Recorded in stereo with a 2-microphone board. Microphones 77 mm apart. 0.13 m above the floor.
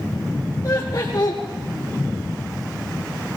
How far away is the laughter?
About 2 m.